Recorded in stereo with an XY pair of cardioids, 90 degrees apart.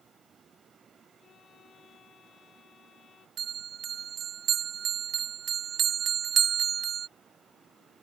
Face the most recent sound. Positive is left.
turn(degrees=-65)